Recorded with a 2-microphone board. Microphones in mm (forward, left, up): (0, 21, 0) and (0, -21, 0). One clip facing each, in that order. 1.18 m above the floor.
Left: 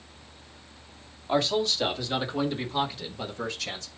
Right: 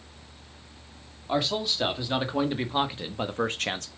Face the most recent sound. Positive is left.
turn(degrees=-55)  # may be behind; listen again after turning